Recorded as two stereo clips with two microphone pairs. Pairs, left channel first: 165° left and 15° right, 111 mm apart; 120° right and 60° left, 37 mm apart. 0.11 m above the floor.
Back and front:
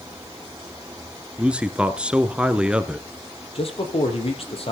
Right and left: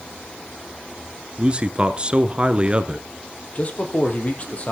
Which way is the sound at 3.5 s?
170° right.